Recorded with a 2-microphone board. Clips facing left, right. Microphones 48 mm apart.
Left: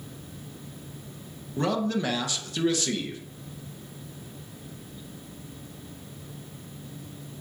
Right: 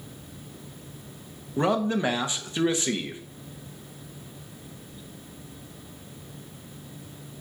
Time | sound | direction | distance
1.6 | a man speaking | 20° right (ahead or behind) | 0.6 m